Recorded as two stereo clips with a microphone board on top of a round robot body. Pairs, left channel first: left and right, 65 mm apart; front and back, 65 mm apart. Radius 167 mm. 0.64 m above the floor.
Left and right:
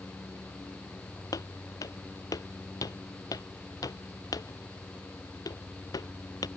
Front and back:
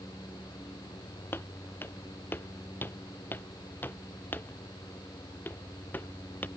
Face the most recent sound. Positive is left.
turn(degrees=65)